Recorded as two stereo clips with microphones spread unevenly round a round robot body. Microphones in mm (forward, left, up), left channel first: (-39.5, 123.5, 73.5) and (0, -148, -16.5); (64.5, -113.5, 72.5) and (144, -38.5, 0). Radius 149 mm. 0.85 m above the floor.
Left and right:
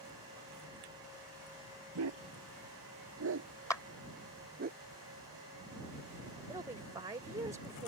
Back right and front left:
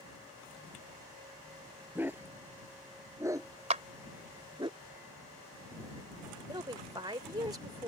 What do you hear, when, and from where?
1.9 s a dog barking: 40° right; by 4.7 s 15° right
3.7 s a clap: 15° left
6.5 s a woman speaking: 5° right